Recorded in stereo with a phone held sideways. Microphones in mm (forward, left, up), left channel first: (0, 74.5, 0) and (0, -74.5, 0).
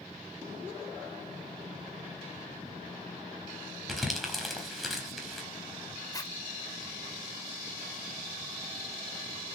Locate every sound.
3.9 s crumpling: centre (ahead or behind), 4.5 m
6.1 s a zipper: 25° left (ahead or behind), 2 m